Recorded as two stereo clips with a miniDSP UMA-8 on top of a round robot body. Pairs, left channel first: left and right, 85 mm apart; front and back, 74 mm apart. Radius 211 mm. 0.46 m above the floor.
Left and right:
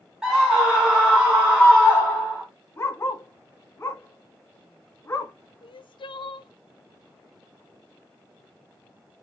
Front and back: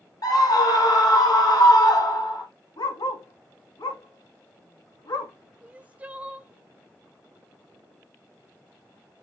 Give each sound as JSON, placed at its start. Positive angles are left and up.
{"t": 0.2, "sound": "a scream", "azimuth_deg": -10, "distance_m": 2.5}
{"t": 2.8, "sound": "a dog barking", "azimuth_deg": 25, "distance_m": 2.0}
{"t": 5.6, "sound": "crying", "azimuth_deg": 110, "distance_m": 0.6}